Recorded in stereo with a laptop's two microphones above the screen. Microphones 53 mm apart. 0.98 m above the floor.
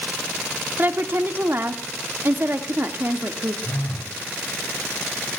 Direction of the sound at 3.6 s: 60° left (ahead or behind).